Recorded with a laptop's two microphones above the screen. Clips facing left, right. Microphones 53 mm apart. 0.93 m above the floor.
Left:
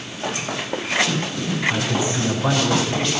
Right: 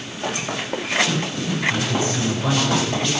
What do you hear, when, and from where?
1.7 s a man speaking: 30° left (ahead or behind), 9.5 m